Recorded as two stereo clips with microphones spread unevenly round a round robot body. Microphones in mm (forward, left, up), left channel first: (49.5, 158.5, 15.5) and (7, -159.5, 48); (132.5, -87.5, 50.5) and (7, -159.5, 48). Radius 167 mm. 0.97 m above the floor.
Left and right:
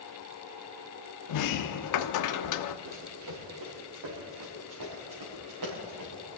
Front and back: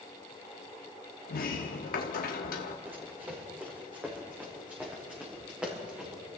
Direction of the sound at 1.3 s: 50° left.